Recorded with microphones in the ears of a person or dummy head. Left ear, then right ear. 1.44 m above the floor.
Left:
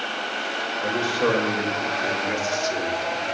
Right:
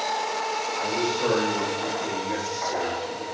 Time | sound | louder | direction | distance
0.8 | a man speaking | left 4 dB | 55° left (ahead or behind) | 5 m